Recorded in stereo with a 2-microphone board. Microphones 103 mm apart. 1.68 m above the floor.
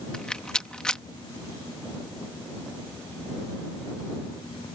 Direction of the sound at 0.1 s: 10° left (ahead or behind).